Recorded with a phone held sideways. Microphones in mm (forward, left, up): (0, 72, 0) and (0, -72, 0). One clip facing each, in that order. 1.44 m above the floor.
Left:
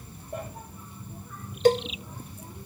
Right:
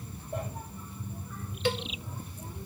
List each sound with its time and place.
1.6 s a cowbell: 40° left (ahead or behind), 0.6 m